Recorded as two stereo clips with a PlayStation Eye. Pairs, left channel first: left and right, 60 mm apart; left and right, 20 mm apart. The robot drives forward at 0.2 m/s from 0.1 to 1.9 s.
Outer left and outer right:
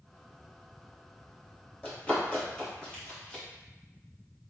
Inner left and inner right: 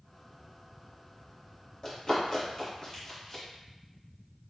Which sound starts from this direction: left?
Running footsteps, at 1.8 s.